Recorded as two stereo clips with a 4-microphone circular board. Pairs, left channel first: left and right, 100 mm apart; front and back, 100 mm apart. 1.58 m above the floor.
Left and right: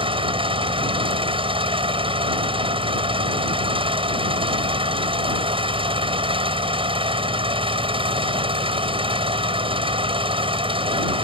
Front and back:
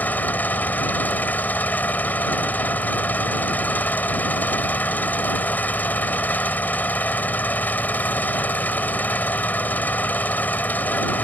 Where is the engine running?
70° right.